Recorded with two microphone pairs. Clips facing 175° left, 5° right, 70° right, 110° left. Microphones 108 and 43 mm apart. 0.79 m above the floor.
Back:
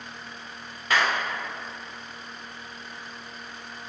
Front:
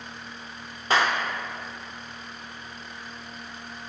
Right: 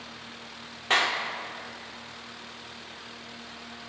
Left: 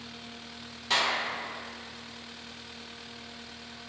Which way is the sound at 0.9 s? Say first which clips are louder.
Front 1 dB, right 3 dB; 45° right.